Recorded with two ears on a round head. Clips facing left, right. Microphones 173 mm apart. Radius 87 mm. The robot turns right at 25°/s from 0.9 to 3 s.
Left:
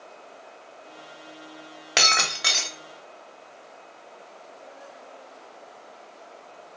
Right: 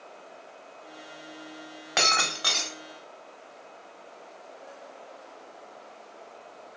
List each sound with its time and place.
2.0 s breaking glass: 35° left (ahead or behind), 0.9 m; by 2.8 s 15° left (ahead or behind), 0.9 m